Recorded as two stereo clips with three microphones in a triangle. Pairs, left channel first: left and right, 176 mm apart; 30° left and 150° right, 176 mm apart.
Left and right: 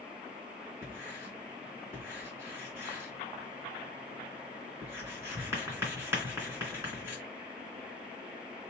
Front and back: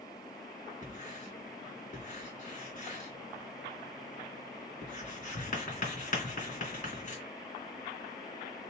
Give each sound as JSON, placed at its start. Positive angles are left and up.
{"t": 0.8, "sound": "writing", "azimuth_deg": -15, "distance_m": 3.0}